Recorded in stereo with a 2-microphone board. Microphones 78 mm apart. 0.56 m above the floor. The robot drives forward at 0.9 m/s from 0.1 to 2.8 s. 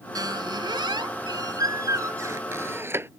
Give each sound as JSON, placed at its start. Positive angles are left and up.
{"t": 0.1, "sound": "a squeak", "side_deg": -60}